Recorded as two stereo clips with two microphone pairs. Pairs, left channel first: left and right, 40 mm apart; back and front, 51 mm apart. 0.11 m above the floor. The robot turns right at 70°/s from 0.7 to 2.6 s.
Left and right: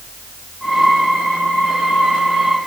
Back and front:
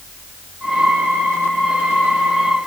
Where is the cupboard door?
No cupboard door in this recording.